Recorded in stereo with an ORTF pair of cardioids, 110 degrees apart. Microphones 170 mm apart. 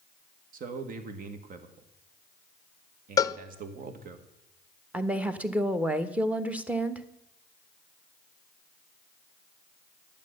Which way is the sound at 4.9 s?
10° right.